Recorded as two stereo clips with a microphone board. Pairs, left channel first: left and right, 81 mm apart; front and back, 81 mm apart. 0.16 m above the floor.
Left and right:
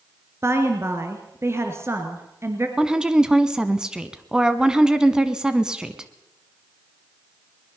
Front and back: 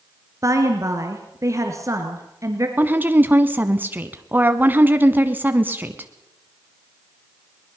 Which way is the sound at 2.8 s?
155° right.